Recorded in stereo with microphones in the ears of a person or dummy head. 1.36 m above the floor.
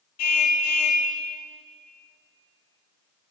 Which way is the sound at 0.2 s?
55° left (ahead or behind).